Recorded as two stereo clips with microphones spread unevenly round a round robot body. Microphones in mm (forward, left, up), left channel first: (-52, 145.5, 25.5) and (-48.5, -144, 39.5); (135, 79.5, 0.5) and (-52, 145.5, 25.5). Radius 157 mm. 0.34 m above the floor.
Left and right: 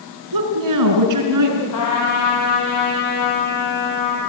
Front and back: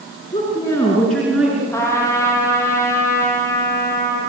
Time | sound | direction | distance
0.3 | a woman speaking | 95° right | 5 m
1.7 | a trumpet | 55° left | 7 m